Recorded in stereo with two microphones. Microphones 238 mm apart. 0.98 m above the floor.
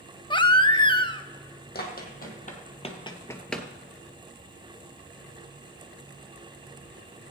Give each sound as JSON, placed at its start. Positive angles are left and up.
{"t": 0.3, "sound": "a baby crying", "side_deg": 20, "distance_m": 0.6}
{"t": 1.8, "sound": "running footsteps", "side_deg": 40, "distance_m": 2.5}